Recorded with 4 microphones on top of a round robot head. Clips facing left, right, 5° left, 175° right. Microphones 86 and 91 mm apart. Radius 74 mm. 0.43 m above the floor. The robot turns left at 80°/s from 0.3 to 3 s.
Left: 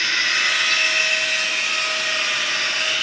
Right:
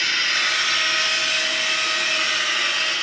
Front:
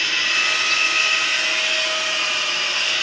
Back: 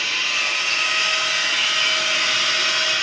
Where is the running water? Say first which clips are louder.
Left 1 dB, front 2 dB; 5° left, 6 m; by 3.0 s 150° left, 6 m.